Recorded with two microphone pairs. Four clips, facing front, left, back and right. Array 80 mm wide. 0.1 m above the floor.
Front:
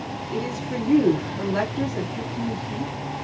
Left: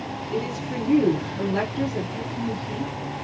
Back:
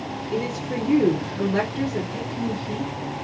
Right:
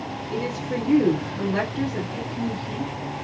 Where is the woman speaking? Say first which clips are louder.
Right 1 dB, back 1 dB; 145° right, 1.5 m.